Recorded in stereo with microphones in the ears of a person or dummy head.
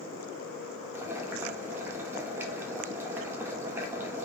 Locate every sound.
0.9 s boiling: 15° right (ahead or behind), 1.0 m